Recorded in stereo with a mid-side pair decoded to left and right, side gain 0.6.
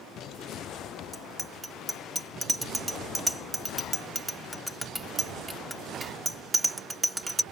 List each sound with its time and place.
1.1 s a bicycle bell: 10° right